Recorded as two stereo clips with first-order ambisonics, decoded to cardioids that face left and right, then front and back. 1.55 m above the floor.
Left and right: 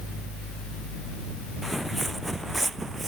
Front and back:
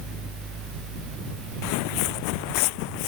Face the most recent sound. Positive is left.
turn(degrees=-10)